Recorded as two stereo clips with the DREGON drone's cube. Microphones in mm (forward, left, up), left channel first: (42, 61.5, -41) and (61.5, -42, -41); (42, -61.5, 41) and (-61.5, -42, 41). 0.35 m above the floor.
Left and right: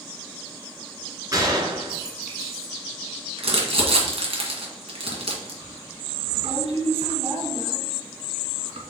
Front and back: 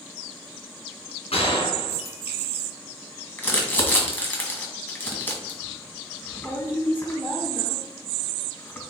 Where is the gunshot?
25° right, 2 m.